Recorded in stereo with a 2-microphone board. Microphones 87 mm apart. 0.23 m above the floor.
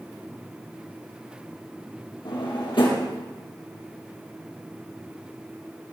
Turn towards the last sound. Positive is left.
turn(degrees=70)  # may be behind; listen again after turning